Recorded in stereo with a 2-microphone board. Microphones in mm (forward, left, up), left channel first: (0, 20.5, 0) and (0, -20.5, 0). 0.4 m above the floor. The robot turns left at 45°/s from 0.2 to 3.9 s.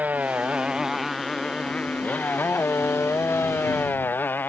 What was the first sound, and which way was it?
A motorcycle, 135° right.